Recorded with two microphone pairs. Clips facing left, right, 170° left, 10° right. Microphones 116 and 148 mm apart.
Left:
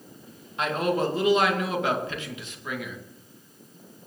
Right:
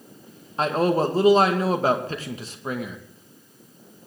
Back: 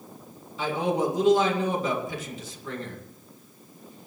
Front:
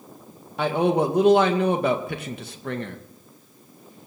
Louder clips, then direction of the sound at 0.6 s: Right 4 dB, front 5 dB; 35° right.